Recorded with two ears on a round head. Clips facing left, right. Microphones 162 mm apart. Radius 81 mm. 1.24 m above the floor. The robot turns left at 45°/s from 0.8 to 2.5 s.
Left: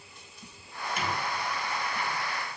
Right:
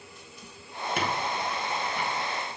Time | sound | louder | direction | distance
1.0 | a squeak | right 3 dB | 50° right (ahead or behind) | 1.3 m